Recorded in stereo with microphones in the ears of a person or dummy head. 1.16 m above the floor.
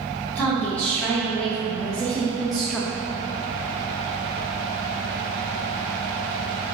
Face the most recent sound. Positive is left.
turn(degrees=-5)  # may be behind; listen again after turning